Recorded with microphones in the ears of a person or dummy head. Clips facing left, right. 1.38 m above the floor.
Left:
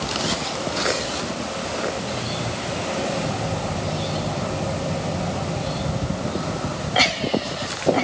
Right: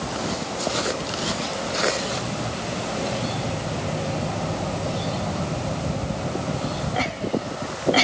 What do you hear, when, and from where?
Only background noise.